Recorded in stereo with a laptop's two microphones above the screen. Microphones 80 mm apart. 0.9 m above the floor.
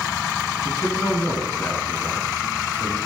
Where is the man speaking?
30° left (ahead or behind), 7.5 m; by 3.0 s 20° left (ahead or behind), 7 m.